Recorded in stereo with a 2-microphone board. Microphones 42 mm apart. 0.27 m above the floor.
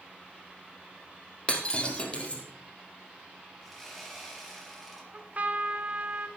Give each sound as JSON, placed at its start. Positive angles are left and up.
{"t": 1.5, "sound": "breaking glass", "side_deg": 25, "distance_m": 3.0}
{"t": 3.6, "sound": "sawing", "side_deg": 0, "distance_m": 4.0}
{"t": 5.1, "sound": "a trumpet", "side_deg": -40, "distance_m": 1.3}